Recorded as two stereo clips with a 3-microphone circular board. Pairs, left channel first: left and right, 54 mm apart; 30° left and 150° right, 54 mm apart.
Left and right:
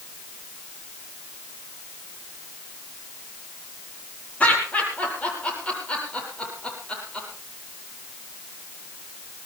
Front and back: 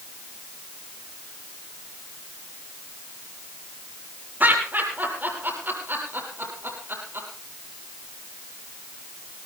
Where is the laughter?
155° left, 8.5 m; by 7.3 s 165° left, 10 m.